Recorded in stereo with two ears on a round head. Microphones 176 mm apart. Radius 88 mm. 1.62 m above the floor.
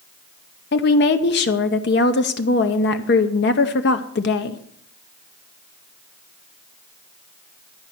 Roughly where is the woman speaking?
Left.